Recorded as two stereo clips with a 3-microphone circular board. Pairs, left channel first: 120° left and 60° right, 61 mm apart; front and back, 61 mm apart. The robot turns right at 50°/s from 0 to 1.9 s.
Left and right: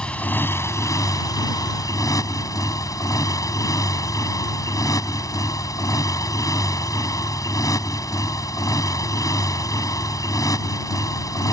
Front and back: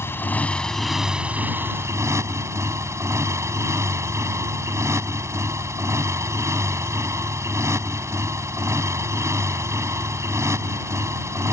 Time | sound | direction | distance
0.0 | a motorcycle | 45° left | ?